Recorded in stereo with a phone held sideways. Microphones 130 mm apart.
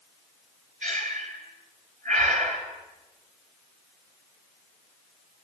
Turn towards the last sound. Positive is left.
turn(degrees=-75)  # may be behind; listen again after turning